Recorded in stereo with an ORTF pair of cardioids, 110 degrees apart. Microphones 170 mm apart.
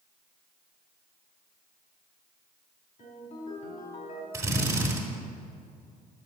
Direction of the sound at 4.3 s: 15° right.